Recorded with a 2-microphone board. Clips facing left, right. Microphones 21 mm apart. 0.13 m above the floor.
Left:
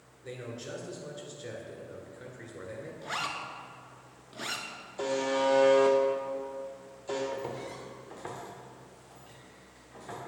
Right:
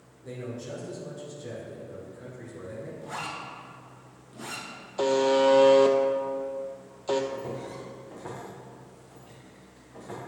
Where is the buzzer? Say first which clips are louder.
Right 7 dB; 50° right (ahead or behind), 0.6 m.